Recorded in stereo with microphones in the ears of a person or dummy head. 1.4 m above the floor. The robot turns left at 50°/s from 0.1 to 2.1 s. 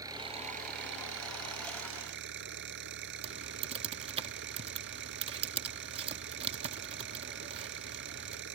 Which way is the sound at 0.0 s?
20° right.